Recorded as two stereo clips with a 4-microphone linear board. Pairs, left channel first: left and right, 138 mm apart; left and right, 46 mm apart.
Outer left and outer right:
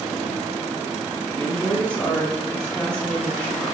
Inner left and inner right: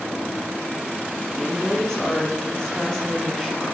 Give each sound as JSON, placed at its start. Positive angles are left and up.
{"t": 1.4, "sound": "a woman speaking", "side_deg": 5, "distance_m": 1.8}